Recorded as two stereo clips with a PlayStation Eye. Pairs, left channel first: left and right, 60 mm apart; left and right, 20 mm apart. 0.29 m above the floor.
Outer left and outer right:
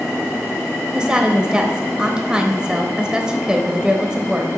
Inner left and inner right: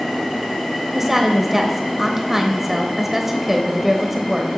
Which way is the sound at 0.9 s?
15° right (ahead or behind).